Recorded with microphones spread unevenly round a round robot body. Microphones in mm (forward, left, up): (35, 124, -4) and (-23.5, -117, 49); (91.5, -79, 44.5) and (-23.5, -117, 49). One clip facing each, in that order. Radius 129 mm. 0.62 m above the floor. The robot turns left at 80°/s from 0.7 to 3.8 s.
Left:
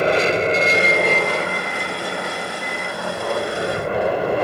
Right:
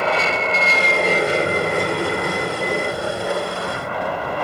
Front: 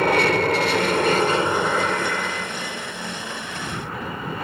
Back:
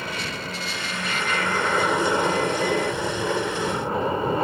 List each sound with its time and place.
0.0 s an aircraft: 15° left; by 4.4 s 130° left